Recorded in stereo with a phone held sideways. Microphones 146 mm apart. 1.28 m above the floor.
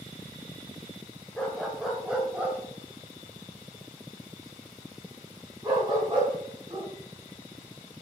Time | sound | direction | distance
1.4 | a dog barking | 5° left (ahead or behind) | 1.9 m